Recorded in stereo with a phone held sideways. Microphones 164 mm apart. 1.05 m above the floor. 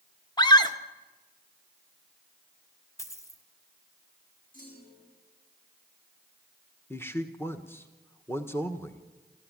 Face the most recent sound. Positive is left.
turn(degrees=15)  # may be behind; listen again after turning